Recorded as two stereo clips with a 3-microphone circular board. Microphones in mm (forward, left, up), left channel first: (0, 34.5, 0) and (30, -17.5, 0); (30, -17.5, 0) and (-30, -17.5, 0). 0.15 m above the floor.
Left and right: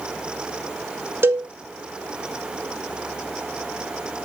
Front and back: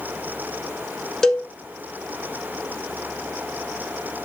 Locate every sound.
1.2 s a cowbell: 80° right, 1.4 m